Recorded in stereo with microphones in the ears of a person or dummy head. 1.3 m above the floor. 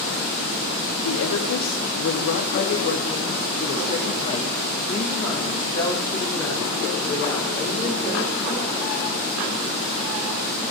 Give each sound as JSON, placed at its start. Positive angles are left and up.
{"t": 1.0, "sound": "a woman speaking", "side_deg": 80, "distance_m": 1.7}